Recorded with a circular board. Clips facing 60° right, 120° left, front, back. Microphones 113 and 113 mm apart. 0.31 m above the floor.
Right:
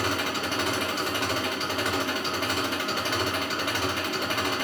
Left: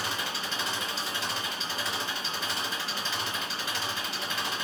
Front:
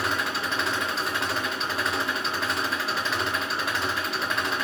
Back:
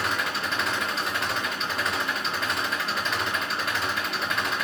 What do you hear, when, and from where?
0.0 s an engine running: 90° right, 3 m